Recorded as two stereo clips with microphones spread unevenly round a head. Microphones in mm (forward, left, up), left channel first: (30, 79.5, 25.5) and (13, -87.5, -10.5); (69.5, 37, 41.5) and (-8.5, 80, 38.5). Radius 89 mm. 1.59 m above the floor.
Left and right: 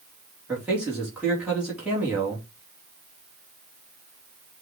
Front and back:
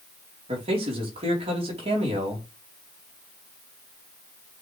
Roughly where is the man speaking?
Behind.